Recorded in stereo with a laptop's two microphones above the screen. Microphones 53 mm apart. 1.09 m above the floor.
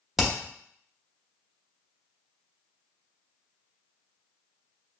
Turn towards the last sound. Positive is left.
turn(degrees=-5)  # may be behind; listen again after turning